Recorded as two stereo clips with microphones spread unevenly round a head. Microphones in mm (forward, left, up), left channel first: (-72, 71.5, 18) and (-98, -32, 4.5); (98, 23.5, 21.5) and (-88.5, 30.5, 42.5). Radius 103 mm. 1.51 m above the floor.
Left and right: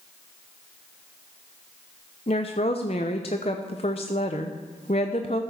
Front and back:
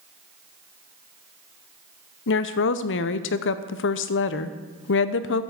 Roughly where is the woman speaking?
Ahead.